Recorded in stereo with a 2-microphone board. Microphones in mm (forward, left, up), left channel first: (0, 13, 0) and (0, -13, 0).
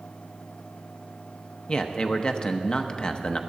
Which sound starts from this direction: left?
A man speaking, at 1.7 s.